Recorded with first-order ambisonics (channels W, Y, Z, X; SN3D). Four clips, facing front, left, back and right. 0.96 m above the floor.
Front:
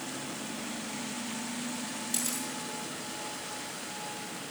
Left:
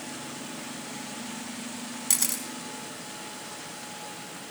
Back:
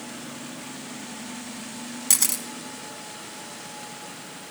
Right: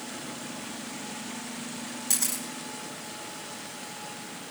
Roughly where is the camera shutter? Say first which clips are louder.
Left 1 dB, back 11 dB; behind.